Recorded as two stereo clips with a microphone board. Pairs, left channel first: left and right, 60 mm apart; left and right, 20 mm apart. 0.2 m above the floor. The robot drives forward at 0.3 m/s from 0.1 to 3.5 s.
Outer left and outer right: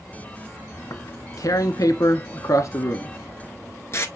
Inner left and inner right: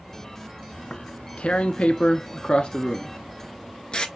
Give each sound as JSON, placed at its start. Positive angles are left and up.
{"t": 0.8, "sound": "tearing paper", "side_deg": 65, "distance_m": 0.7}